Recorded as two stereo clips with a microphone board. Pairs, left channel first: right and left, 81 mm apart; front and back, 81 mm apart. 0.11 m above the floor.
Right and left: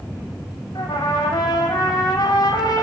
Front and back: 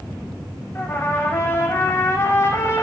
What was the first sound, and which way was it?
A trumpet, 55° right.